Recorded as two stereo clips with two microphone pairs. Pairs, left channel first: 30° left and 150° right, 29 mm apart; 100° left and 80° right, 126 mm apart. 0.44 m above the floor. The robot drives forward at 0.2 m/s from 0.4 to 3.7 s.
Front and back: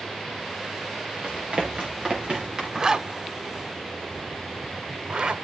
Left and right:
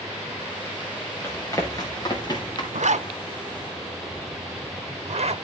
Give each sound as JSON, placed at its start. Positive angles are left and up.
{"t": 1.2, "sound": "running footsteps", "azimuth_deg": 170, "distance_m": 4.5}
{"t": 2.7, "sound": "a zipper", "azimuth_deg": -90, "distance_m": 0.6}